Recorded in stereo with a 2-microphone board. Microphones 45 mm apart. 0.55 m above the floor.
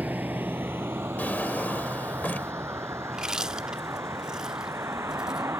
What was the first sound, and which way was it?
A vehicle, 40° right (ahead or behind).